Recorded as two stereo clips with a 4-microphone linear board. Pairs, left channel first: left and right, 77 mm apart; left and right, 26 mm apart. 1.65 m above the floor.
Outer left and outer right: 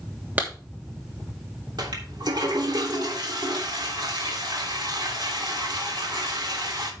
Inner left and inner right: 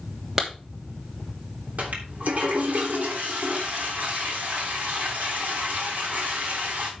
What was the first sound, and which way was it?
A clap, 25° right (ahead or behind).